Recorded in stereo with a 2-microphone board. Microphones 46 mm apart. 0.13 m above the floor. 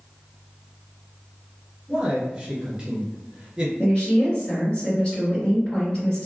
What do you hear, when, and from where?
1.9 s a man speaking: 15° right (ahead or behind), 1.6 m
3.8 s a woman speaking: 25° left (ahead or behind), 1.8 m